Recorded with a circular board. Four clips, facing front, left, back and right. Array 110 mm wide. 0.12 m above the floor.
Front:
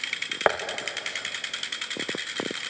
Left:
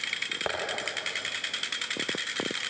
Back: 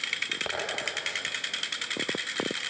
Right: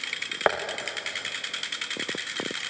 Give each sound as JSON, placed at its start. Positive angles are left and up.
{"t": 0.5, "sound": "tapping", "azimuth_deg": -35, "distance_m": 3.0}